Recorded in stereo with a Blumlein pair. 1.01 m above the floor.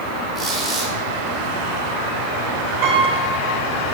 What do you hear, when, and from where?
0.3 s a squeak: 10° right, 2.5 m
2.8 s a piano: 40° right, 2 m